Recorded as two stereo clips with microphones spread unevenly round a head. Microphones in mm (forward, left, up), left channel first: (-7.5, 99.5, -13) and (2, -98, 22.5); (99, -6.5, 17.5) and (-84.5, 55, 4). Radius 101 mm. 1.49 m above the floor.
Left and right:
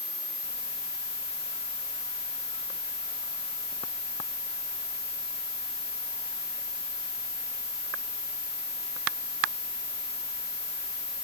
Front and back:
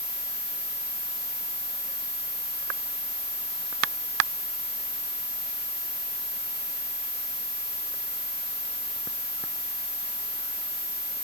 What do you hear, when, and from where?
Only background noise.